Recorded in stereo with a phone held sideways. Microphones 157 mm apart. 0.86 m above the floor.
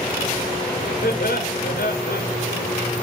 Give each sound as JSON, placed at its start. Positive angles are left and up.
{"t": 1.0, "sound": "laughter", "side_deg": 80, "distance_m": 3.0}